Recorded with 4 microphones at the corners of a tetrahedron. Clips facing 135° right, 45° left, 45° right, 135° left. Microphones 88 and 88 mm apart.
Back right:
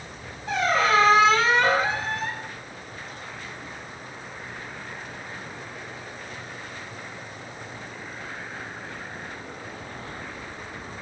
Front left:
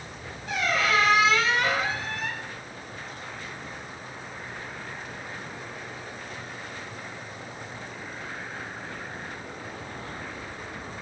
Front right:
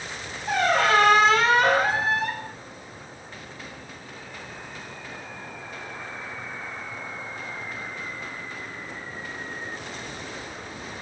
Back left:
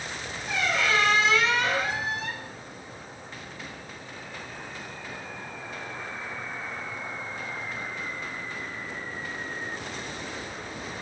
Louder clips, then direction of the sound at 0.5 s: Back right 4 dB, front right 6 dB; 85° right.